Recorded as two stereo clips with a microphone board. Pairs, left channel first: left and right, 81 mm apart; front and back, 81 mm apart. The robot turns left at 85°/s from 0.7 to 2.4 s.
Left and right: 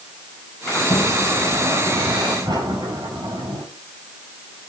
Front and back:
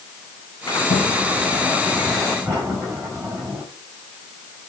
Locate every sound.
0.7 s a sliding door: 35° left, 9 m; by 3.6 s 110° right, 9 m